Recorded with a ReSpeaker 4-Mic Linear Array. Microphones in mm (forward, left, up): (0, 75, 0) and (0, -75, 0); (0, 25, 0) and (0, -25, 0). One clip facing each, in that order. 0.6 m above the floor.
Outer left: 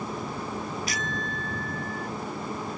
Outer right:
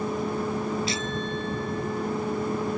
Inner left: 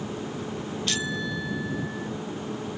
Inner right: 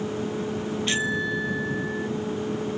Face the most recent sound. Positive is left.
turn(degrees=-25)  # may be behind; listen again after turning